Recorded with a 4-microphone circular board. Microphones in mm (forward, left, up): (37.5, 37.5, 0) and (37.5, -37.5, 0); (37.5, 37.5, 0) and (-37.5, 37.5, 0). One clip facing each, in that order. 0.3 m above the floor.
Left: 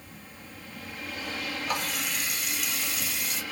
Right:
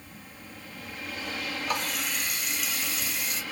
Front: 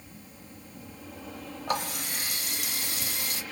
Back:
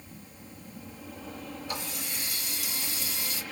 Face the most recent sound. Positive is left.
turn(degrees=0)